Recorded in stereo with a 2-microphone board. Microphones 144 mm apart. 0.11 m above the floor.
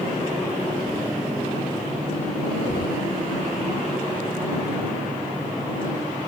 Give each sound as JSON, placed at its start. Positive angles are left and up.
{"t": 2.7, "sound": "knocking", "side_deg": 75}